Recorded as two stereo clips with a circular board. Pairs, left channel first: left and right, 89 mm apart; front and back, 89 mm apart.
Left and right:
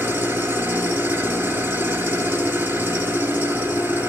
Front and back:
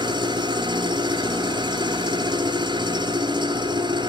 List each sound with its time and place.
0.0 s an engine running: 155° right, 2.5 m